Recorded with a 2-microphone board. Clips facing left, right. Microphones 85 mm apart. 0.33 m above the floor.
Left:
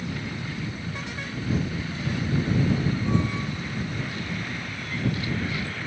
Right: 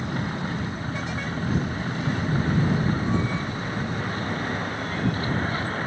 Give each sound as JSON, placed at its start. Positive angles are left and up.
{"t": 0.0, "sound": "a vehicle", "side_deg": -40}